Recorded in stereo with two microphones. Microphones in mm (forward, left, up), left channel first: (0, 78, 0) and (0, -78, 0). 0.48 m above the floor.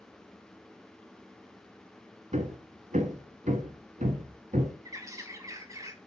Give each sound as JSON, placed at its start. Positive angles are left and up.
{"t": 2.3, "sound": "hammering", "side_deg": -50, "distance_m": 1.4}
{"t": 4.8, "sound": "a bird", "side_deg": -20, "distance_m": 1.2}